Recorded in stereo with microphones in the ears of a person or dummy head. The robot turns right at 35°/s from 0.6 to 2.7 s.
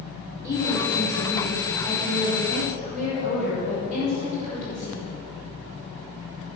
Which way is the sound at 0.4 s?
150° left.